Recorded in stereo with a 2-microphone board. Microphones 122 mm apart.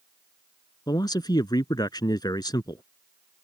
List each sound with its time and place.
0.9 s a man speaking: 35° left (ahead or behind)